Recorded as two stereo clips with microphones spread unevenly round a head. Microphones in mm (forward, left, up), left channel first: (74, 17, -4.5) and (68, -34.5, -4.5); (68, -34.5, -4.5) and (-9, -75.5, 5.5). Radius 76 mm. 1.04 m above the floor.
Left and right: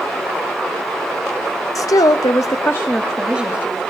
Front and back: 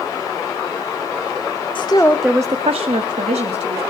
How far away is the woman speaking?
About 0.9 m.